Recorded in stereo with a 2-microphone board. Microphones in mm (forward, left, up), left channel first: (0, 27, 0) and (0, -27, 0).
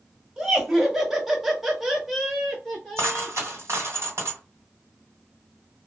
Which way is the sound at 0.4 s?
5° right (ahead or behind).